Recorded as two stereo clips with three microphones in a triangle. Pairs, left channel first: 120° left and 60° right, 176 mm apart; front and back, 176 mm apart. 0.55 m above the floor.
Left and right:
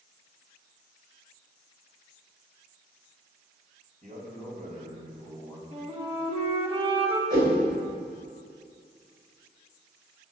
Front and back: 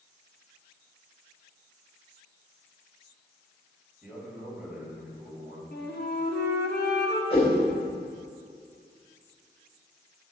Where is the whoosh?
55° right, 3 m.